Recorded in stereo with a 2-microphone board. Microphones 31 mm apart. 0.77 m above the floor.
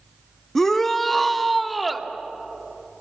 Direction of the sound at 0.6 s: 15° left (ahead or behind).